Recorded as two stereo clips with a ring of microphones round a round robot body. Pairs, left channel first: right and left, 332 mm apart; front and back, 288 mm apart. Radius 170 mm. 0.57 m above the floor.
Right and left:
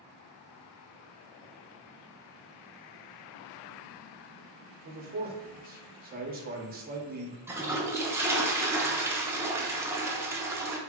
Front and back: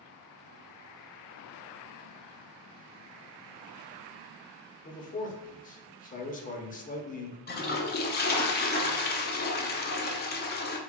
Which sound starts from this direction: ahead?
A toilet flushing, at 7.5 s.